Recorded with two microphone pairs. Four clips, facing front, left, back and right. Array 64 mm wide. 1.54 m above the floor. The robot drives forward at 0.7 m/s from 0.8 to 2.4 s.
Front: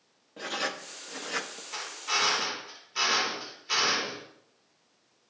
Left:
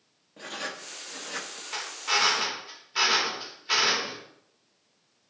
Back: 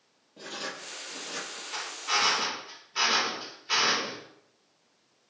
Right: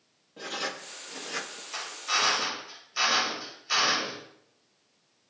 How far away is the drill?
About 5 m.